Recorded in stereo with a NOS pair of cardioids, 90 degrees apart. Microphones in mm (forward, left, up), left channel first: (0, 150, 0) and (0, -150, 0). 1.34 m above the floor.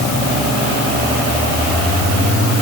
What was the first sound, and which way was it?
Only background noise.